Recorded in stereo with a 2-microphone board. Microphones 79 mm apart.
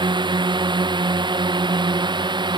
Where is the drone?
75° right (ahead or behind); by 2.6 s 70° right (ahead or behind).